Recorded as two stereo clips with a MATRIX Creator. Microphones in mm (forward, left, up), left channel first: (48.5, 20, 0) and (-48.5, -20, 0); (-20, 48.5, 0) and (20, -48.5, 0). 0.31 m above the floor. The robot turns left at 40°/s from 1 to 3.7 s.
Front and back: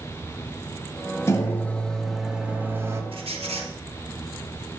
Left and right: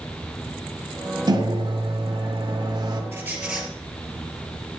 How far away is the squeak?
About 1.5 m.